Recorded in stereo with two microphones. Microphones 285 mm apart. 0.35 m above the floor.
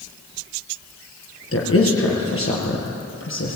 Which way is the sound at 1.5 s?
50° left (ahead or behind).